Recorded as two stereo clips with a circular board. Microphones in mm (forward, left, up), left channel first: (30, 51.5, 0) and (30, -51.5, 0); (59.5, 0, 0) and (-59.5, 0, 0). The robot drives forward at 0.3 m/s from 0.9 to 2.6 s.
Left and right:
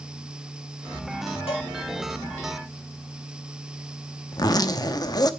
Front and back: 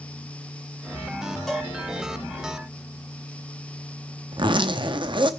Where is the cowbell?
90° left, 5.5 m.